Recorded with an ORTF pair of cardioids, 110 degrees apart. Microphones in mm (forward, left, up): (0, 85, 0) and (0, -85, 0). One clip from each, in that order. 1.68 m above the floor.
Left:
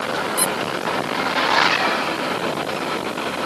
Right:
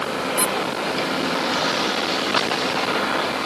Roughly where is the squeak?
Ahead.